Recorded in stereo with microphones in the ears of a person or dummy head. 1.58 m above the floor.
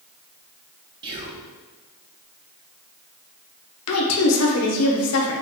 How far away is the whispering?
About 0.5 m.